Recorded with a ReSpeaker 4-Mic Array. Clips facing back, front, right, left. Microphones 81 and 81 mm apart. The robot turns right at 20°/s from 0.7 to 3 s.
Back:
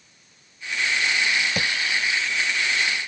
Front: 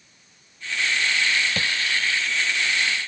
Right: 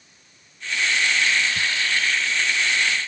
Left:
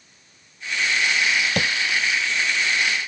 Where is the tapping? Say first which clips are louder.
Back 1 dB, left 3 dB; 105° left.